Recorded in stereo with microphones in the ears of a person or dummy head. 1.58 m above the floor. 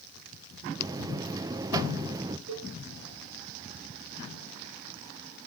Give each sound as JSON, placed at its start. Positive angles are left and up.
{"t": 0.8, "sound": "a buzzer", "side_deg": -20, "distance_m": 0.5}
{"t": 2.5, "sound": "a cowbell", "side_deg": -75, "distance_m": 6.0}